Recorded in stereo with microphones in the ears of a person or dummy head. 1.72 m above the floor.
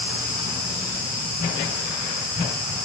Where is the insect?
45° left (ahead or behind), 4.5 m.